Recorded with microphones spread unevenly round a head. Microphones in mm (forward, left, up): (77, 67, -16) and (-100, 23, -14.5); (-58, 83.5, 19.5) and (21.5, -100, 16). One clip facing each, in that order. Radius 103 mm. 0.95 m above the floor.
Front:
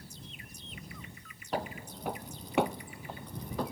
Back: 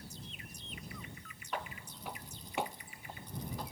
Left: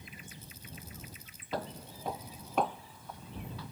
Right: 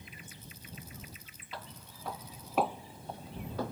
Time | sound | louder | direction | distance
1.5 | footsteps | front 7 dB, left 10 dB | 65° left | ?